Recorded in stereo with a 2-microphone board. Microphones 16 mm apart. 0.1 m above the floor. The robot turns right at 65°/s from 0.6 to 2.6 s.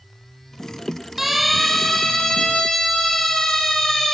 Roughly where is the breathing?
I don't hear breathing.